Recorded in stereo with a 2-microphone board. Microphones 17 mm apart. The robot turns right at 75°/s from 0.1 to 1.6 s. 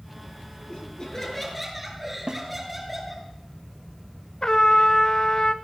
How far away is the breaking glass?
No breaking glass in this recording.